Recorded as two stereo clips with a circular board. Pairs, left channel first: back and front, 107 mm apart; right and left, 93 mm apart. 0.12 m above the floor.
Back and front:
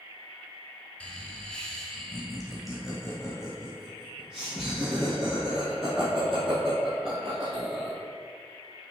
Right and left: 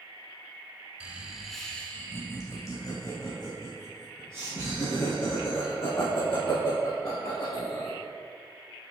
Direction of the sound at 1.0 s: 120° left.